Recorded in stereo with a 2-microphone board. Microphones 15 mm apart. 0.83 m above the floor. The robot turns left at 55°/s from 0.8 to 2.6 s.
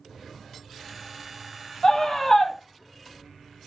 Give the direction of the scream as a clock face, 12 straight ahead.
10 o'clock.